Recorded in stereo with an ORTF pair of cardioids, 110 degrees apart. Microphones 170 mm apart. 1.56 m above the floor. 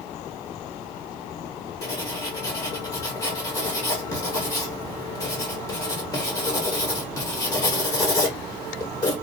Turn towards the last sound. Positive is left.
turn(degrees=20)